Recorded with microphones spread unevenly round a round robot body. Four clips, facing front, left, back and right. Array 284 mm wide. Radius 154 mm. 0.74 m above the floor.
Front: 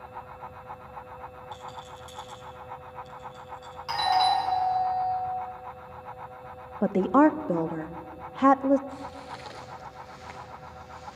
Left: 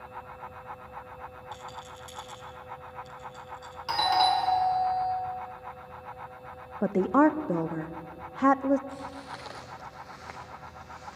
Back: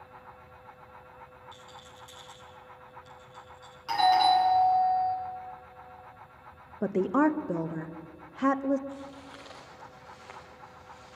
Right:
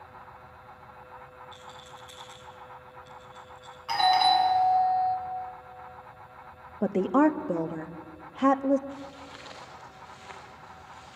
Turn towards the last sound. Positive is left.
turn(degrees=65)